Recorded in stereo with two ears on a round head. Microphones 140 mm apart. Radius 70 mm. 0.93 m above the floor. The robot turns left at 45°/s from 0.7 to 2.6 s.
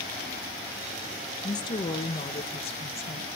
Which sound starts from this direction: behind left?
A woman speaking, at 1.4 s.